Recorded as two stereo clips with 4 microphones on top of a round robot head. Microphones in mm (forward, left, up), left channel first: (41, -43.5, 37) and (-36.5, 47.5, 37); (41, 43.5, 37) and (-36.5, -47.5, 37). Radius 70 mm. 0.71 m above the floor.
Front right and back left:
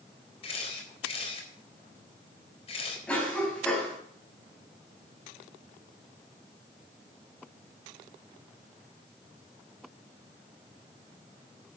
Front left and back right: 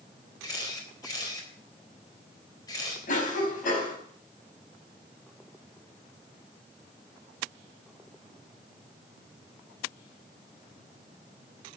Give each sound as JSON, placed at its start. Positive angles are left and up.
{"t": 0.4, "sound": "a camera shutter", "azimuth_deg": -10, "distance_m": 4.0}
{"t": 3.1, "sound": "a cough", "azimuth_deg": 30, "distance_m": 4.5}